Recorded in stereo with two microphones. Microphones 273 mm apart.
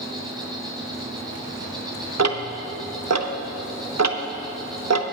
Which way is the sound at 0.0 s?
15° right (ahead or behind).